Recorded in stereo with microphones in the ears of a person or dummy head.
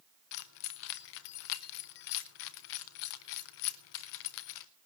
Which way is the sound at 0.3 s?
40° left (ahead or behind).